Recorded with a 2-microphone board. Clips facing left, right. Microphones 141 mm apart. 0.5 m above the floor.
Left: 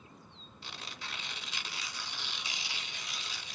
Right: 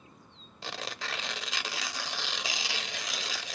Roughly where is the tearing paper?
Right.